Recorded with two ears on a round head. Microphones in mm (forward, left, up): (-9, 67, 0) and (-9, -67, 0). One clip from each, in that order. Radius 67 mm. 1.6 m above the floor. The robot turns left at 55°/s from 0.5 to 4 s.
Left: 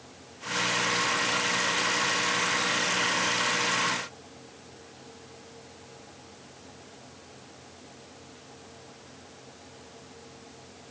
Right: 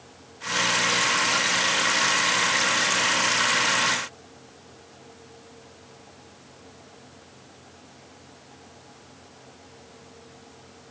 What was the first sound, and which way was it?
Only background noise.